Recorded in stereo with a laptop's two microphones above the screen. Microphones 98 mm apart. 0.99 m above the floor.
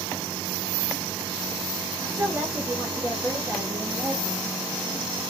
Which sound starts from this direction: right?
A woman speaking, at 2.0 s.